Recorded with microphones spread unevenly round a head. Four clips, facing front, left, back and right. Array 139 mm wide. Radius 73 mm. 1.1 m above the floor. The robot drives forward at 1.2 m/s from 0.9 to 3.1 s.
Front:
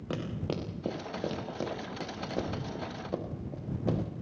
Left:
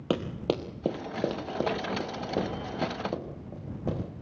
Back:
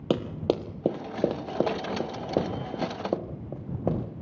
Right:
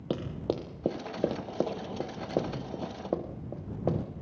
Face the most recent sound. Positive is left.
turn(degrees=-145)